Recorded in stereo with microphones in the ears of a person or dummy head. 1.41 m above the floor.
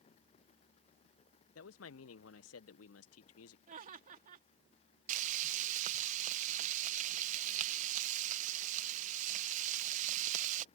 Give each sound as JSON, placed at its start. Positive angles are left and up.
{"t": 1.6, "sound": "a man speaking", "side_deg": 80}
{"t": 3.7, "sound": "laughter", "side_deg": -40}
{"t": 5.1, "sound": "frying", "side_deg": -45}